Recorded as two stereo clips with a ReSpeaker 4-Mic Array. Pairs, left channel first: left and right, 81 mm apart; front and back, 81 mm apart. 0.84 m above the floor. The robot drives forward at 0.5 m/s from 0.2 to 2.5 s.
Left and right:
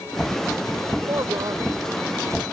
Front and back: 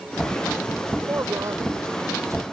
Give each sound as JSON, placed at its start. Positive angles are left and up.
{"t": 1.1, "sound": "a woman speaking", "azimuth_deg": -125}